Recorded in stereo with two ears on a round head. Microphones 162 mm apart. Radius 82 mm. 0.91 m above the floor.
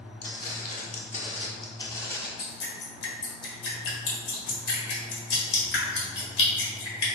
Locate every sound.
0.2 s footsteps: 55° left (ahead or behind), 1.4 m; by 2.3 s 5° left (ahead or behind), 1.1 m
2.4 s dripping: 65° left (ahead or behind), 1.4 m